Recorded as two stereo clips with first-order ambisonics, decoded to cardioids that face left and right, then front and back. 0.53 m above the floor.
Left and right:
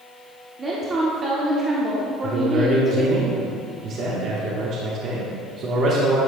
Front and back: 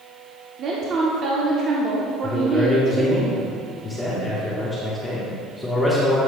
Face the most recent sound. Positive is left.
turn(degrees=-75)